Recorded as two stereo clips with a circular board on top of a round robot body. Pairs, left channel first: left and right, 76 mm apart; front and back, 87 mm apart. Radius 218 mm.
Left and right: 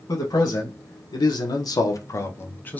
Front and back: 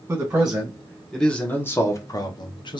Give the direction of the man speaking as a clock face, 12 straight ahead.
8 o'clock.